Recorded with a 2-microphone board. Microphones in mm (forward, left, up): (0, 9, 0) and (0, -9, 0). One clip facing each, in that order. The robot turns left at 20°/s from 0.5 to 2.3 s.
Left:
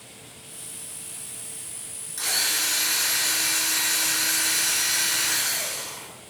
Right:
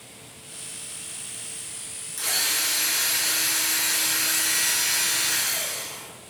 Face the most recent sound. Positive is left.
turn(degrees=15)  # may be behind; listen again after turning